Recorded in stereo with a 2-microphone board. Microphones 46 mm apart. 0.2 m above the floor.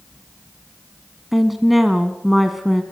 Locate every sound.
1.3 s a woman speaking: 5° right (ahead or behind), 1.6 m